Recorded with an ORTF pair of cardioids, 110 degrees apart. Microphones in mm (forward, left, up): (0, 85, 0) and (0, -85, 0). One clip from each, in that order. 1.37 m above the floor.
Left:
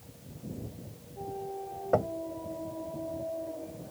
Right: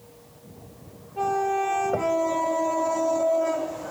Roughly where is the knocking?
Ahead.